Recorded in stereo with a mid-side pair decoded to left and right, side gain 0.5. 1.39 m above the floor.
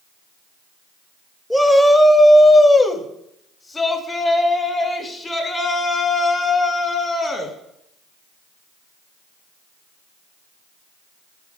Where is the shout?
15° left, 2.0 m; by 7.5 s 40° left, 8.5 m.